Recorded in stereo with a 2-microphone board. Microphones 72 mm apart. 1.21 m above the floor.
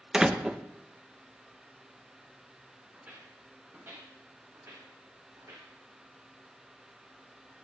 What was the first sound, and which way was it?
A door slam, 10° right (ahead or behind).